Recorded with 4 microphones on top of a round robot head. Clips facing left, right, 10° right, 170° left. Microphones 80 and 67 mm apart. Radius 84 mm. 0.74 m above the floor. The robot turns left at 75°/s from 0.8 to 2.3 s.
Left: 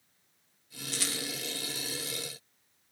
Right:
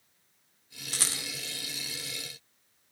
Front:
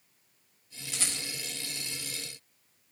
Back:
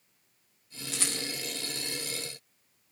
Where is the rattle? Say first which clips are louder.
Left 1 dB, back 2 dB; 135° right, 1.5 m; by 1.2 s 160° right, 1.5 m.